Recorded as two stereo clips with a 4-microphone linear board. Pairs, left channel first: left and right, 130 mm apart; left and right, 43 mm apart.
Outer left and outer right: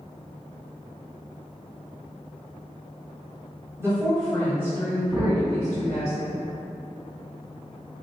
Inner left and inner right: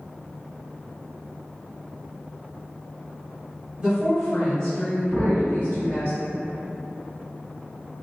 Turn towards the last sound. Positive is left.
turn(degrees=-5)  # may be behind; listen again after turning